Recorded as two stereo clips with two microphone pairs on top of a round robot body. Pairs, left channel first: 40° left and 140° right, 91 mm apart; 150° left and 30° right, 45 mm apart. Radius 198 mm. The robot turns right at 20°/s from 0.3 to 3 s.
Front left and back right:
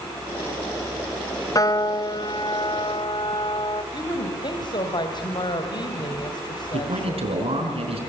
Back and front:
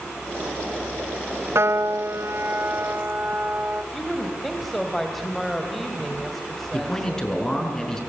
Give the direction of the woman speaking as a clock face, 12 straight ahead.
10 o'clock.